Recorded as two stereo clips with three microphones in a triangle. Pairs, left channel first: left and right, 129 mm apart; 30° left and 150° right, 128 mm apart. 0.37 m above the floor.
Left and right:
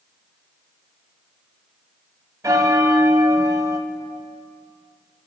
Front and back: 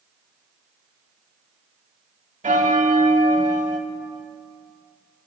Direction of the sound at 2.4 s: 155° right.